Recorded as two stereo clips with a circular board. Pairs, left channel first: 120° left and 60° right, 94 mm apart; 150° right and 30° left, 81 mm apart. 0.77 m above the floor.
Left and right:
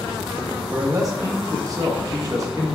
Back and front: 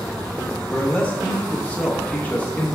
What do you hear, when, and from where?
0.7 s a man speaking: 90° right, 0.7 m